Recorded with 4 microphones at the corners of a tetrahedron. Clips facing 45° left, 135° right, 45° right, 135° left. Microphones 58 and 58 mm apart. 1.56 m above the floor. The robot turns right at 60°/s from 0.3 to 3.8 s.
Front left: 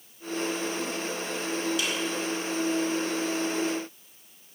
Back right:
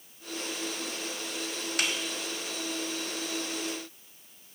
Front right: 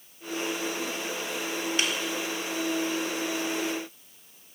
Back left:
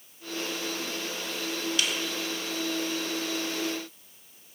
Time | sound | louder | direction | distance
1.8 | a snare drum | front left 1 dB, front right 1 dB | 105° right | 1.6 m